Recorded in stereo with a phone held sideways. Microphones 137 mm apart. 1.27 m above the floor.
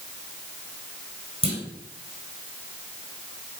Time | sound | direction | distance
1.4 | a clunk | 45° right (ahead or behind) | 7 m